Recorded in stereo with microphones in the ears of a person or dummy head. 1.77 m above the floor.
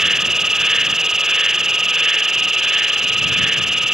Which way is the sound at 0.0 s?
5° right (ahead or behind).